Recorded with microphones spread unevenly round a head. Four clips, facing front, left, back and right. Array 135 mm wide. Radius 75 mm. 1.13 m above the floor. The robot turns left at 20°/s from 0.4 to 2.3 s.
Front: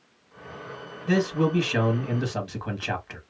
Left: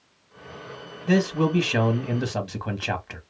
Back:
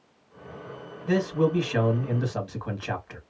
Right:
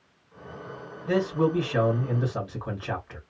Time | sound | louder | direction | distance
1.1 | a man speaking | left 2 dB, even | 105° left | 1.5 m